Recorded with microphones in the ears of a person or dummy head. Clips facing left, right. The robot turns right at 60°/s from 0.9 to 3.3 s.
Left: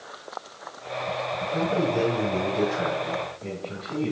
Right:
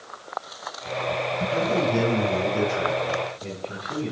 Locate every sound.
1.4 s a man speaking: 115° right, 6 m; by 4.1 s 5° right, 6 m